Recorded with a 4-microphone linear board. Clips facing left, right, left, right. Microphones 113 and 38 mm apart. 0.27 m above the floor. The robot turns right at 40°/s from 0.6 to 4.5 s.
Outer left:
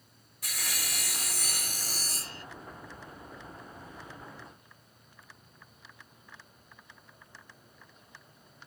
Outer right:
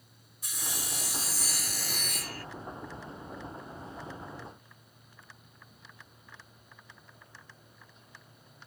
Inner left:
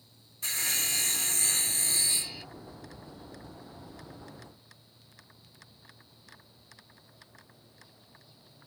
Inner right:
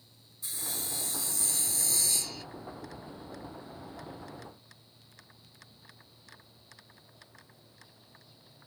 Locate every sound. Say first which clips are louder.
0.4 s sawing: even, inner left 8 dB; 85° left; by 2.5 s 160° left